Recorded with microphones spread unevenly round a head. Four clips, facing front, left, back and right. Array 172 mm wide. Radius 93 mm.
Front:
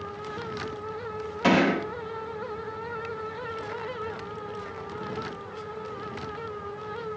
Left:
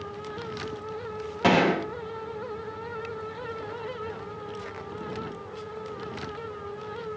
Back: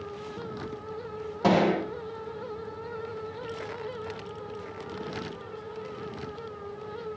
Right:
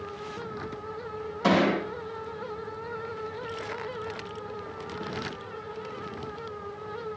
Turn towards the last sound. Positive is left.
turn(degrees=130)